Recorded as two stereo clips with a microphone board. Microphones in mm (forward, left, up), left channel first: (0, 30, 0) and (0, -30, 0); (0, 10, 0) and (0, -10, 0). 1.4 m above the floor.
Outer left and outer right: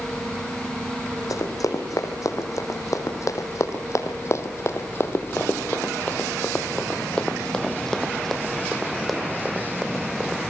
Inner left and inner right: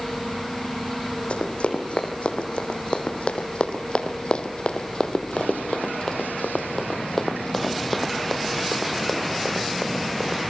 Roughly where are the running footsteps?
Left.